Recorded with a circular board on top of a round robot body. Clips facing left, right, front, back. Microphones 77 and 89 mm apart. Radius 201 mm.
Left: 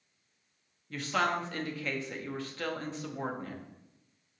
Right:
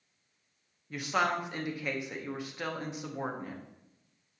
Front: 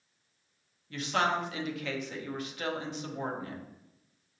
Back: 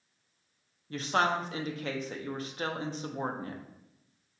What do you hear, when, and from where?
0.9 s a woman speaking: 160° right, 0.8 m